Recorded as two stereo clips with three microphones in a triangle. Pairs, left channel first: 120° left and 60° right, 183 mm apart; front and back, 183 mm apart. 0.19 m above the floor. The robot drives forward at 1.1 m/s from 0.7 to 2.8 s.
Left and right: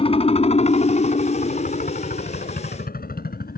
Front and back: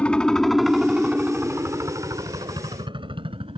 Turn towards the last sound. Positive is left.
turn(degrees=125)